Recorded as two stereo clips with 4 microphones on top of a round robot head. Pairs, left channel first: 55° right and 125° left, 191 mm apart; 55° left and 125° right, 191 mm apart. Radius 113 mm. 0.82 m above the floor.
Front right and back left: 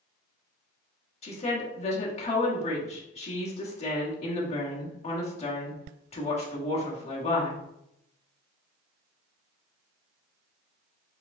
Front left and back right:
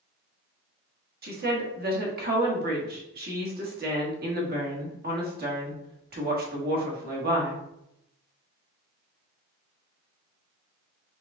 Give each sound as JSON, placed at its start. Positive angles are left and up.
{"t": 1.2, "sound": "a woman speaking", "azimuth_deg": -105, "distance_m": 1.4}